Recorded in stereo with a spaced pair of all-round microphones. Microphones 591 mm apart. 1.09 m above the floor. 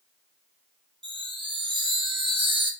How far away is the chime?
About 0.7 m.